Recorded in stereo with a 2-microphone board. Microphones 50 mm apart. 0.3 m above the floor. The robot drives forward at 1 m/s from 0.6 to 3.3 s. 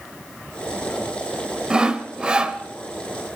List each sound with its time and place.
1.7 s sawing: 15° right (ahead or behind), 1.5 m